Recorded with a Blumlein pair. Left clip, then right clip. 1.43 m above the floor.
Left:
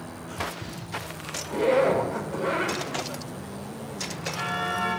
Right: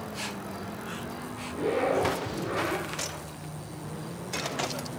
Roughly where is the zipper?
Ahead left.